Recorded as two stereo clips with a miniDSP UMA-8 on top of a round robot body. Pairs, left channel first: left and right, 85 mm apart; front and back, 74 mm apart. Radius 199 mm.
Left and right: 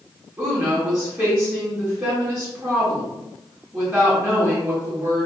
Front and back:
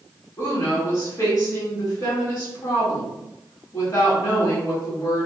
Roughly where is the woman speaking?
Ahead right.